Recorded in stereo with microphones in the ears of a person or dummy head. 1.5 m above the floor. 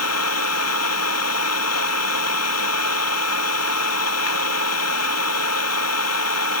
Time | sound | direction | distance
0.0 | an engine running | 85° left | ?